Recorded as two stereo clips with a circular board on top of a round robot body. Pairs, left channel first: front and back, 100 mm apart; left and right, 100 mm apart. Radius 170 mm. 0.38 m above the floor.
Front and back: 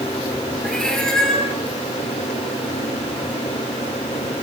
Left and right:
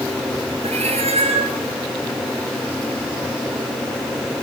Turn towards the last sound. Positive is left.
turn(degrees=-85)